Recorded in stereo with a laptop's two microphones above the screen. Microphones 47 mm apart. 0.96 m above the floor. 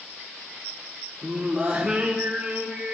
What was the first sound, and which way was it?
Singing, 25° right (ahead or behind).